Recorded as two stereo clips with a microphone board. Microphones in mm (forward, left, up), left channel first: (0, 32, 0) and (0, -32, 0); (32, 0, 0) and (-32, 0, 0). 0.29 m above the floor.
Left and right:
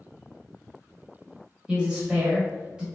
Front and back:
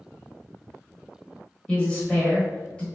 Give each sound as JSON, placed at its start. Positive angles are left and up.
{"t": 1.7, "sound": "a woman speaking", "azimuth_deg": -45, "distance_m": 1.0}